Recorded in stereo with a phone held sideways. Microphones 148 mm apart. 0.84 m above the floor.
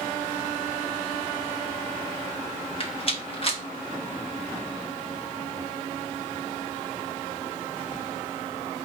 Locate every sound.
2.8 s a rattle: 40° left (ahead or behind), 1.0 m